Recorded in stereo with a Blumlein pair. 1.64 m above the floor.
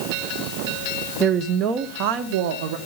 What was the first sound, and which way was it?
A woman speaking, 15° right.